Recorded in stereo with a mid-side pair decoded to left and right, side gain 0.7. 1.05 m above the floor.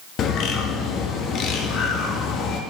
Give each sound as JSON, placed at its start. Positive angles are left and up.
{"t": 0.2, "sound": "a bird", "azimuth_deg": 45, "distance_m": 1.0}